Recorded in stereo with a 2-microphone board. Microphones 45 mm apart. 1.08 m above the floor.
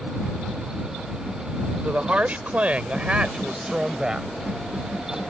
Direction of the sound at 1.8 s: 40° right (ahead or behind).